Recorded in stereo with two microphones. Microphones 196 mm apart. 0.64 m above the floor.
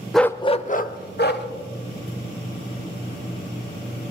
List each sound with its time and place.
0.1 s a dog barking: centre (ahead or behind), 0.5 m; by 1.5 s 60° left (ahead or behind), 1.2 m